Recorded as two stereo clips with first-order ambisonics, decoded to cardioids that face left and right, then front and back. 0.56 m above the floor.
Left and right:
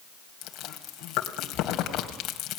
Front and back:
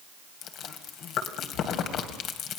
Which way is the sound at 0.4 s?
45° left.